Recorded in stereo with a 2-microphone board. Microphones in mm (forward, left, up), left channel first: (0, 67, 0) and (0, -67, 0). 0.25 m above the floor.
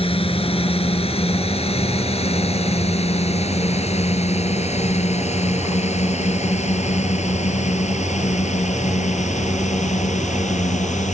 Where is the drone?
45° left (ahead or behind); by 11.1 s 60° left (ahead or behind).